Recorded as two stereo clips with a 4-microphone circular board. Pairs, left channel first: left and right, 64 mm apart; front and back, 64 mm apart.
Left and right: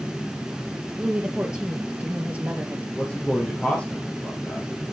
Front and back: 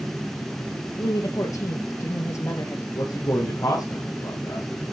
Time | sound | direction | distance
1.0 | a woman speaking | 10° right | 3 m
3.0 | a man speaking | 20° left | 4 m